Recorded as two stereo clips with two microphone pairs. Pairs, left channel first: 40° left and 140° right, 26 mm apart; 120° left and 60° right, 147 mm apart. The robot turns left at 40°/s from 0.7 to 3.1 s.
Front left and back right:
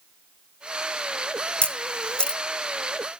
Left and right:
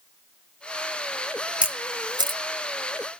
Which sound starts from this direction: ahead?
A camera shutter, at 1.6 s.